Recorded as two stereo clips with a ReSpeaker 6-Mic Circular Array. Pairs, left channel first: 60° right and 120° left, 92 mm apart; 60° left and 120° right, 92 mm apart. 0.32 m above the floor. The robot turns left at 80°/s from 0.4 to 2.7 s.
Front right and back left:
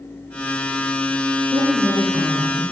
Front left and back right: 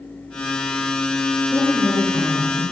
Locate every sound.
1.5 s a woman speaking: 105° left, 3.5 m; by 2.6 s 15° left, 3.5 m